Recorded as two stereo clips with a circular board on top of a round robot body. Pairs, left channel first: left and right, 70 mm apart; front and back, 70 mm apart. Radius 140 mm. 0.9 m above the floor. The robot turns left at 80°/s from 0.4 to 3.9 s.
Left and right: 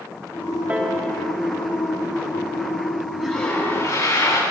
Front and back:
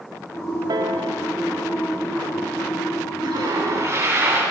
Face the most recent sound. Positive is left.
turn(degrees=125)